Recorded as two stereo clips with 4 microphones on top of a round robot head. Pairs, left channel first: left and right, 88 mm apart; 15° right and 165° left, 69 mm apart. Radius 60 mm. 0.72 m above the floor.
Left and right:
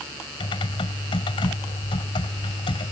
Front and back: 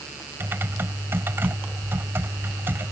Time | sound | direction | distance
0.4 | typing on a keyboard | 115° left | ?